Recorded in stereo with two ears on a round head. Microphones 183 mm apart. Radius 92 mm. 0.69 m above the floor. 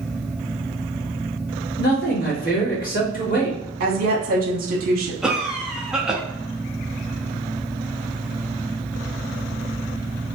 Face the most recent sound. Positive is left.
turn(degrees=-5)  # may be behind; listen again after turning